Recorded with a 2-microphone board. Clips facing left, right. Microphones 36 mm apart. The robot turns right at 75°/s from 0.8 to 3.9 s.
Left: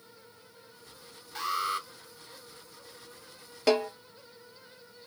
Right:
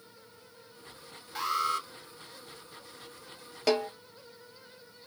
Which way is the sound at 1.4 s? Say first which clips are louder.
Right 1 dB; 10° right.